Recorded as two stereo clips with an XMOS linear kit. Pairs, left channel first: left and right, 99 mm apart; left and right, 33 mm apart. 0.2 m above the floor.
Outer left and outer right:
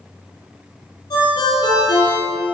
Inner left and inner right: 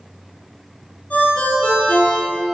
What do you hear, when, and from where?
1.1 s a ringtone: 45° left (ahead or behind), 4.5 m